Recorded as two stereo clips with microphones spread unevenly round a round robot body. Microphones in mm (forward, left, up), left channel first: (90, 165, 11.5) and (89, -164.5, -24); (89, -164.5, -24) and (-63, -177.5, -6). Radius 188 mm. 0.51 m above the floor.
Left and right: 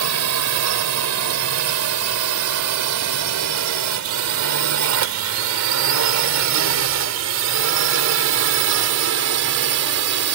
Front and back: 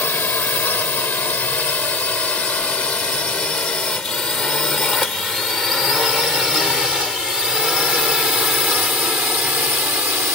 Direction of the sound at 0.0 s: 70° right.